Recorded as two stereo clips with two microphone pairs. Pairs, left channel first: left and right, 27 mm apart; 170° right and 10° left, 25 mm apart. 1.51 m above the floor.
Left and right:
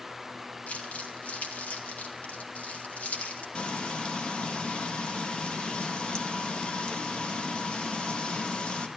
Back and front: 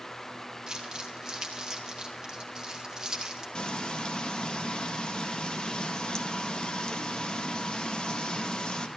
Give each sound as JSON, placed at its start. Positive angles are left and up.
{"t": 0.7, "sound": "crumpling", "azimuth_deg": 75, "distance_m": 3.0}
{"t": 3.5, "sound": "frying", "azimuth_deg": 140, "distance_m": 1.7}